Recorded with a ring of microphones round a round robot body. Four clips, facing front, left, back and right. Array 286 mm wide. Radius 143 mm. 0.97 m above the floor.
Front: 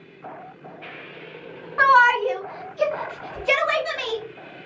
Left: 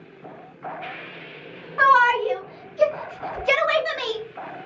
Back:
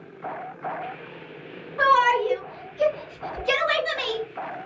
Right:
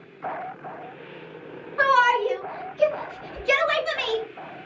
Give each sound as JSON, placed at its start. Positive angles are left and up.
{"t": 1.8, "sound": "a shout", "azimuth_deg": 20, "distance_m": 1.3}